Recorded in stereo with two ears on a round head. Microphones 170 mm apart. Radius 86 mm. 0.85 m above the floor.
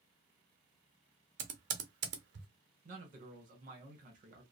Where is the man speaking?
40° right (ahead or behind), 1.1 m.